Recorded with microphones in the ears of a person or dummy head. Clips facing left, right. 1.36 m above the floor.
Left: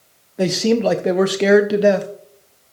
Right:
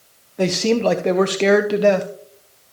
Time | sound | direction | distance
0.4 | a man speaking | 5° left (ahead or behind) | 0.7 m